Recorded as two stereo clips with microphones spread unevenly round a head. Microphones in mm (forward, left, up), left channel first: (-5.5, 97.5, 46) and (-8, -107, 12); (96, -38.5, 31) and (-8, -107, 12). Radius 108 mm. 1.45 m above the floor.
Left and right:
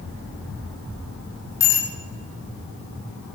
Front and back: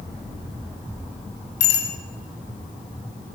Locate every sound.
1.6 s a bicycle bell: 15° left, 7 m